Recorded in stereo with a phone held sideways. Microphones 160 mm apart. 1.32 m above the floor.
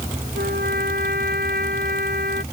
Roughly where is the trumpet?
Right.